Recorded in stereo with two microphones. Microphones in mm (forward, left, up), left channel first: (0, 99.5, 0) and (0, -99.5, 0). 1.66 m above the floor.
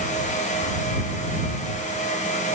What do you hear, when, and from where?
Only background noise.